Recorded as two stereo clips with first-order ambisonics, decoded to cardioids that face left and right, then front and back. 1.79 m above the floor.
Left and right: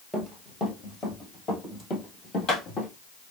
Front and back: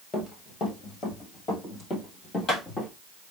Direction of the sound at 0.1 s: 5° left.